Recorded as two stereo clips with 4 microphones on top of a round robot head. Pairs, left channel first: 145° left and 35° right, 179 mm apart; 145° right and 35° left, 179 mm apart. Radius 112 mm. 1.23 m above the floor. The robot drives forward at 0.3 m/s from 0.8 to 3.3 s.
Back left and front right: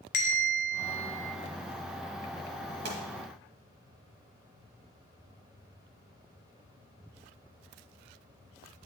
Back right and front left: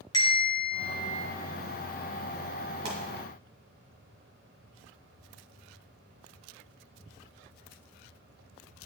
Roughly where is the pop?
Ahead.